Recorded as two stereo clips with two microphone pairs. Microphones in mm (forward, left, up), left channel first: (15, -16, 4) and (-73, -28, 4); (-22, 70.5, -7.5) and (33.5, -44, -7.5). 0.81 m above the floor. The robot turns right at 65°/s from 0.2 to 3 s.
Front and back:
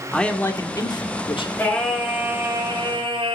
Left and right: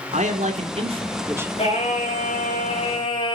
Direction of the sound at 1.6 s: 75° left.